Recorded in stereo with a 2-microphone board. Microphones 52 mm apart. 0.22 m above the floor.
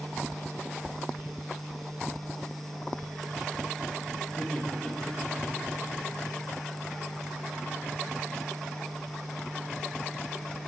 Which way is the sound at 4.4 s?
5° left (ahead or behind).